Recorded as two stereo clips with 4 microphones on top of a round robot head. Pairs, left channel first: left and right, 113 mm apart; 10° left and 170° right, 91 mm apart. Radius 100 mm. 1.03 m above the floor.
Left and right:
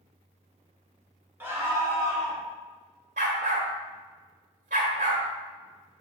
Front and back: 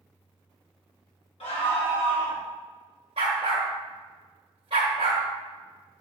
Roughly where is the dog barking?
Behind right.